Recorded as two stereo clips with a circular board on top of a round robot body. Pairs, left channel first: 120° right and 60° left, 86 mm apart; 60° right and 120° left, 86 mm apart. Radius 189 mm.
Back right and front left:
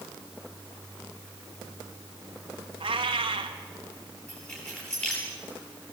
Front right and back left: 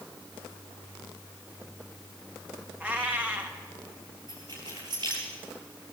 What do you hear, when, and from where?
2.8 s a cat meowing: 45° left, 2.0 m
4.3 s keys jangling: 165° left, 9.5 m